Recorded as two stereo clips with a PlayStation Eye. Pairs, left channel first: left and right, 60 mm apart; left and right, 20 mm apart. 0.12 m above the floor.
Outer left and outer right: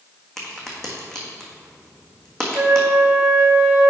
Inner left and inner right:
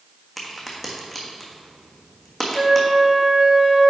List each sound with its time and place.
0.4 s a crack: 10° left (ahead or behind), 1.4 m
2.5 s a flute: 50° right (ahead or behind), 1.7 m